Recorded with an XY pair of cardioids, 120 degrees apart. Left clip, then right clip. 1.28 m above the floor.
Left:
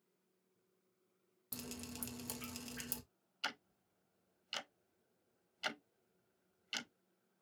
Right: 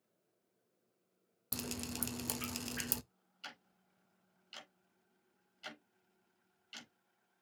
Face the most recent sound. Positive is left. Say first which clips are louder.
# left 8 dB
turn(degrees=55)